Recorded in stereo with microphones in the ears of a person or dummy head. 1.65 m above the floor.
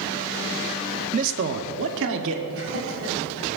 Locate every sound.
1.1 s a man speaking: 35° right (ahead or behind), 0.7 m; by 2.4 s 70° right (ahead or behind), 1.3 m
2.5 s laughter: 80° right, 4.5 m